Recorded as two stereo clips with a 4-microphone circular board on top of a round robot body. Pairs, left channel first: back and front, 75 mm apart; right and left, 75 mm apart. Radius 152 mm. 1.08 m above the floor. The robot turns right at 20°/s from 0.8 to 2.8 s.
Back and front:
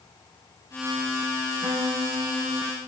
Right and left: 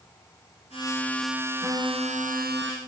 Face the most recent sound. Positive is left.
turn(degrees=60)